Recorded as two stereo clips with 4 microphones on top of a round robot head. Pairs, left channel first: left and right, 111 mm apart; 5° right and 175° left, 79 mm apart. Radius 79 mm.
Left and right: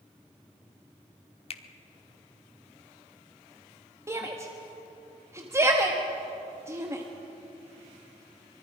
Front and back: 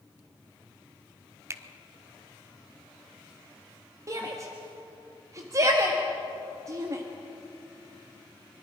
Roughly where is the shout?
Behind right.